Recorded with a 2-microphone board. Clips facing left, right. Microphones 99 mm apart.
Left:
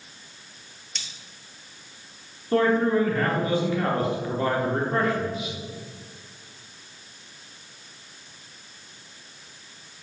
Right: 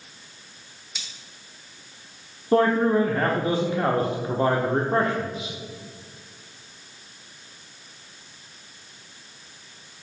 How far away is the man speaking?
About 0.8 m.